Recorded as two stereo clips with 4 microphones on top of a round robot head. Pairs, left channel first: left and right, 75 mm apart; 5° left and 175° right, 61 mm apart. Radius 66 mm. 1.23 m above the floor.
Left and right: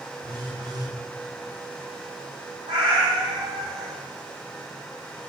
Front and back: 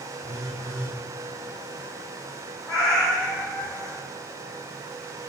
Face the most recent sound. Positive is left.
turn(degrees=-80)